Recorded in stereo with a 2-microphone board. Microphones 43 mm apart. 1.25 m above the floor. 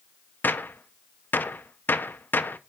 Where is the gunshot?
45° left (ahead or behind), 0.5 m.